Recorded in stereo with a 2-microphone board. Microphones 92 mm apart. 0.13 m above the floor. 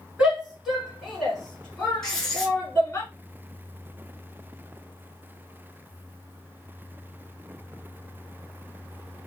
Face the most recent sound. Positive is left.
turn(degrees=5)  # may be behind; listen again after turning